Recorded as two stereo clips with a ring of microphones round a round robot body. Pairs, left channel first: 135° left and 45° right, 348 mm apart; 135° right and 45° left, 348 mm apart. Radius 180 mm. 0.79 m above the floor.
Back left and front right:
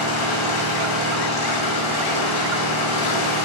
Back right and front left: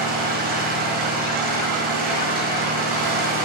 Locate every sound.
0.0 s an engine running: 110° left, 5 m